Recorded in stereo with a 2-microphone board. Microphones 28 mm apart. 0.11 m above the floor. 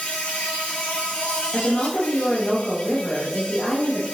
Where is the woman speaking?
40° left (ahead or behind), 3 m.